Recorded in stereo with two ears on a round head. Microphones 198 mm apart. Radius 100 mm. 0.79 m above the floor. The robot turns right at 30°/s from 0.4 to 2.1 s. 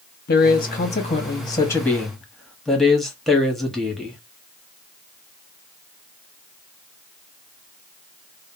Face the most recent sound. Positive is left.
turn(degrees=180)